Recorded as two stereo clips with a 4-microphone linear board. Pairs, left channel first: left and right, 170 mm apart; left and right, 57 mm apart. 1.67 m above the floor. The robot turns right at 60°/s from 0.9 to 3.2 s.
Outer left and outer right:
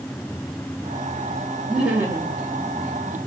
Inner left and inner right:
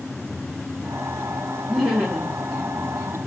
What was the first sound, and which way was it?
Laughter, straight behind.